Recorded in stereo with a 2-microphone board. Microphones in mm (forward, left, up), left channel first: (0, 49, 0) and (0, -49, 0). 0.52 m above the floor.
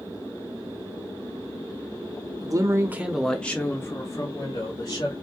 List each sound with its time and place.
2.4 s a man speaking: 40° right (ahead or behind), 0.7 m; by 5.1 s 45° left (ahead or behind), 1.6 m